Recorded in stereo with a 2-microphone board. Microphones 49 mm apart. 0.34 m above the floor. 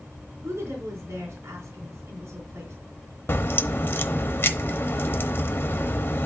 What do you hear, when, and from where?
0.4 s a woman speaking: 60° right (ahead or behind), 4 m
3.3 s a crack: 50° left (ahead or behind), 0.9 m